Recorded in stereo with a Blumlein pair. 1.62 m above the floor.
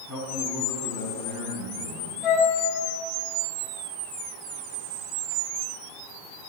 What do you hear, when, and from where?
0.1 s a man speaking: 20° left, 2.5 m
2.2 s a flute: 30° left, 2.0 m